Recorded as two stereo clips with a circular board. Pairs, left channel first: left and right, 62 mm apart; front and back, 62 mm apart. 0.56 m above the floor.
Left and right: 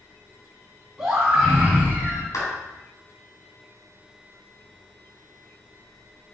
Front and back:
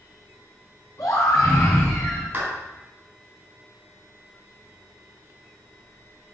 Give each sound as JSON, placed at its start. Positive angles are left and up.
{"t": 1.0, "sound": "a scream", "azimuth_deg": -10, "distance_m": 4.0}
{"t": 2.3, "sound": "a clap", "azimuth_deg": 120, "distance_m": 4.0}